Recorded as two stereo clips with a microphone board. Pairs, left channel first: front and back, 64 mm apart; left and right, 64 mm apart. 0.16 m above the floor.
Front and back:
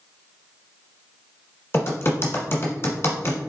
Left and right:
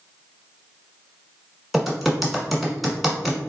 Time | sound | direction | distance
1.7 | typing on a keyboard | 5° right | 1.3 m